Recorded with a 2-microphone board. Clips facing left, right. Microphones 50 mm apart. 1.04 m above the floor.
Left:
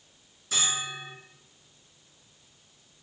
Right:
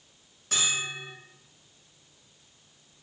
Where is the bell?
60° right (ahead or behind), 1.3 m.